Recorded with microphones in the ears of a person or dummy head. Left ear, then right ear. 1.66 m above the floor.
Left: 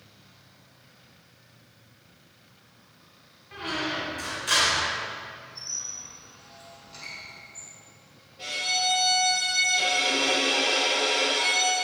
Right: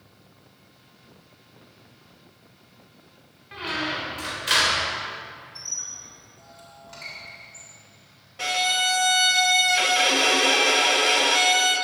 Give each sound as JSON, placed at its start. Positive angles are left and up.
{"t": 3.5, "sound": "a squeak", "side_deg": -15, "distance_m": 1.7}
{"t": 5.5, "sound": "a squeak", "side_deg": -45, "distance_m": 3.5}
{"t": 8.4, "sound": "a violin", "side_deg": -50, "distance_m": 0.7}